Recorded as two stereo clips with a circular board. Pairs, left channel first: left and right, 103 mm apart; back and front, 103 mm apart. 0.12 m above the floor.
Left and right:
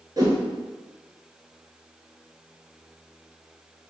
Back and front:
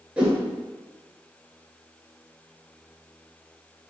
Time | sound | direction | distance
0.2 | a whoosh | 70° right | 1.4 m